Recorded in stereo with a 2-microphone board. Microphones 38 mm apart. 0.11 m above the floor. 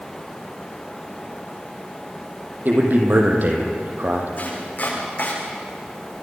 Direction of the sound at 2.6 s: 55° right (ahead or behind).